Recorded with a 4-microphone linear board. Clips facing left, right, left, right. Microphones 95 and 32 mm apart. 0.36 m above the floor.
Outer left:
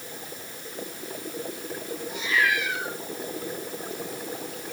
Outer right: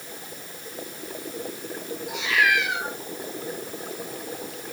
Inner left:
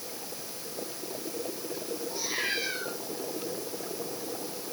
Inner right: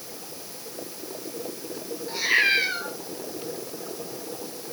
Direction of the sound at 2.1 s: 70° right (ahead or behind).